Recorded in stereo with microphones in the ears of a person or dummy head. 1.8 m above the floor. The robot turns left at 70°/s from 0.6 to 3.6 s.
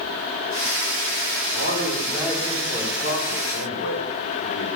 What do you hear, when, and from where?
1.5 s a man speaking: 115° right, 7 m; by 4.7 s 100° left, 7 m